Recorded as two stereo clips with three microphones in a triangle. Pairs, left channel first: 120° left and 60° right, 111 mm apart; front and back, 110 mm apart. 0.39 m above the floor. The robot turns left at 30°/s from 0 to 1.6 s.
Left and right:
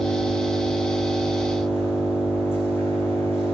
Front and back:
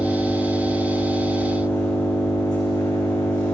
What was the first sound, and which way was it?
An engine running, 100° left.